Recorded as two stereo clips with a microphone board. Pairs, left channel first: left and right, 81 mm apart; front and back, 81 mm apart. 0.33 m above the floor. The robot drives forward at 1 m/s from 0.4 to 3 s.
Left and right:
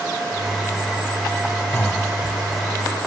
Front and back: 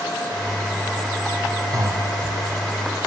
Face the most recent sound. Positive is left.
turn(degrees=160)